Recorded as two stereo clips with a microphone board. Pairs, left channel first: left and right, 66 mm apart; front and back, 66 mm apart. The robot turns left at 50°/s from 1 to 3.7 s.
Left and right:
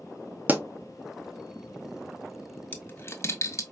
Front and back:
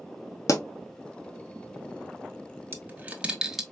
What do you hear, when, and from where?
0.5 s a pop: 30° right, 0.6 m
2.7 s a dropped coin: 140° left, 0.6 m; by 3.6 s 95° left, 0.6 m